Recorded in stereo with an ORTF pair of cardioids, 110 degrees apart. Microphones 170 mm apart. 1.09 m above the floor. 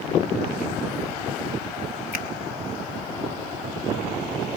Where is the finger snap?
60° left, 4.5 m.